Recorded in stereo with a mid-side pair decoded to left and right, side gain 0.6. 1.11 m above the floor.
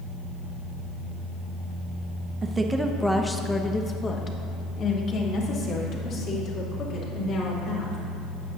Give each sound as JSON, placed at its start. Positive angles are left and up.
{"t": 2.4, "sound": "a woman speaking", "azimuth_deg": -30, "distance_m": 0.7}